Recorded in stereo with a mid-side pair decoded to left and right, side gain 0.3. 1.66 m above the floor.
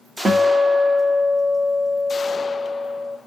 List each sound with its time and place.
0.2 s a guitar: 45° right, 1.2 m